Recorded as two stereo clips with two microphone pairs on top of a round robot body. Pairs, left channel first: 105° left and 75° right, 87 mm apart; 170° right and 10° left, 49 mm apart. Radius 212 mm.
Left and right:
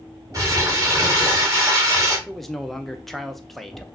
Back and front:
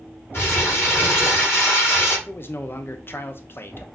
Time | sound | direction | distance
0.3 | crumpling | 125° right | 1.8 m
2.3 | a man speaking | 170° right | 0.8 m